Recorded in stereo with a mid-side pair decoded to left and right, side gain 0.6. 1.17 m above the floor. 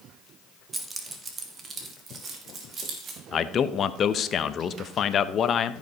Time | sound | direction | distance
0.7 | keys jangling | 20° right | 1.6 m
3.3 | a man speaking | 40° left | 0.9 m